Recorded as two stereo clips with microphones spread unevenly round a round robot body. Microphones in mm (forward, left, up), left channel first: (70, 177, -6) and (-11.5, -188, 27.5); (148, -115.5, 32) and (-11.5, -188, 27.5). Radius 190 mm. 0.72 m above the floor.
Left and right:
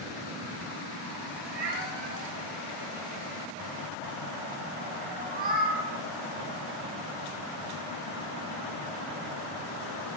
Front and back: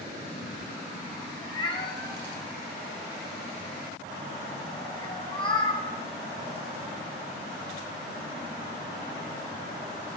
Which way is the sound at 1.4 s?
35° right.